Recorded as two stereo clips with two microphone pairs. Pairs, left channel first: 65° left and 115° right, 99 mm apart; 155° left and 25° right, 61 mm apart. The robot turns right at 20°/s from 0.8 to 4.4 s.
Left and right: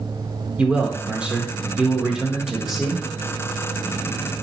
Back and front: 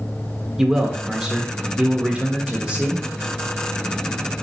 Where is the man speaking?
75° right, 0.8 m; by 3.0 s 30° right, 0.8 m.